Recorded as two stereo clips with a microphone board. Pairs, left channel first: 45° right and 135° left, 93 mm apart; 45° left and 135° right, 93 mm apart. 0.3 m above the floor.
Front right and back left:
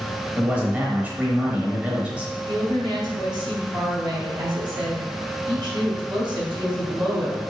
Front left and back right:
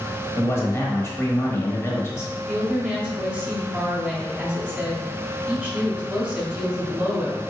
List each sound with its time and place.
0.4 s a man speaking: 70° left, 1.0 m
2.5 s a woman speaking: 145° left, 1.9 m